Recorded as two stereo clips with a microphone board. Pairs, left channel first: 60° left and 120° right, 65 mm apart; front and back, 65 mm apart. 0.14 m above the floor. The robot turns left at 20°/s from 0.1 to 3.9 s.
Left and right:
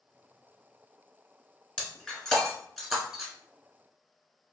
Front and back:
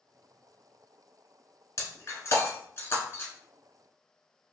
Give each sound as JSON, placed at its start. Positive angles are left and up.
{"t": 1.8, "sound": "breaking glass", "azimuth_deg": -15, "distance_m": 1.1}